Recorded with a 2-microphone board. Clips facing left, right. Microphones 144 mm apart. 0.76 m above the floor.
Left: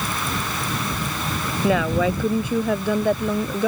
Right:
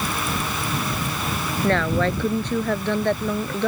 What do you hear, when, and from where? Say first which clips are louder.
1.6 s a woman speaking: left 1 dB; 10° left (ahead or behind)